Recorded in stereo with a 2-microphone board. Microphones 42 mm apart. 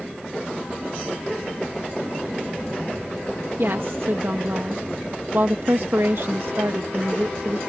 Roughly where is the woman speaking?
Right.